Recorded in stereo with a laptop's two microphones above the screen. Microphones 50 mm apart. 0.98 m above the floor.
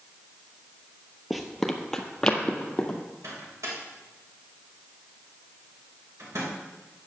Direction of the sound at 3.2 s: 90° right.